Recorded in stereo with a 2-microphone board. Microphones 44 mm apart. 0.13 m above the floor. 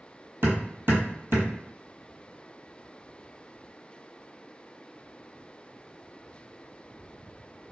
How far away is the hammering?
About 1.0 m.